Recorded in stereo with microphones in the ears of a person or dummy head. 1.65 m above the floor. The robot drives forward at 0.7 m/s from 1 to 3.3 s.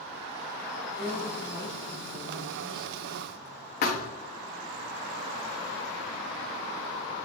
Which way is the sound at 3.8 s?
45° left (ahead or behind).